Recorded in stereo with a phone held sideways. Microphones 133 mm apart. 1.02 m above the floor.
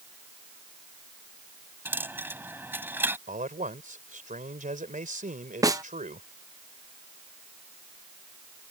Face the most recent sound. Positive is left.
turn(degrees=-25)  # may be behind; listen again after turning